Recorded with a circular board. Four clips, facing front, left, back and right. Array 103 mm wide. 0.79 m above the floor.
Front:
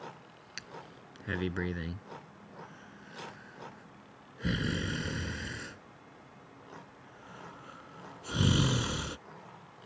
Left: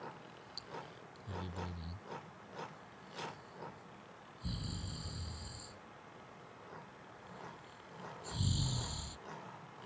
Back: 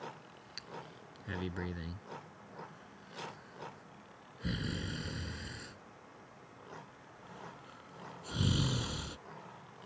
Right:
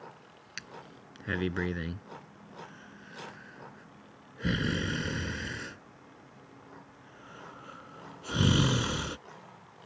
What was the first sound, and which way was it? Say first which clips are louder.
Breathing: right 2 dB, front 1 dB; 65° right.